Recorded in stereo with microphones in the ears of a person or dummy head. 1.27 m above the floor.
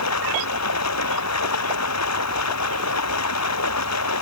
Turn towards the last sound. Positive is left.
turn(degrees=85)